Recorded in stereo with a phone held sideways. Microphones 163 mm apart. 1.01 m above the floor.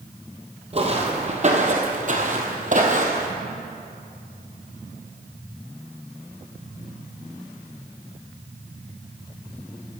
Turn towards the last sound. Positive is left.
turn(degrees=-50)  # may be behind; listen again after turning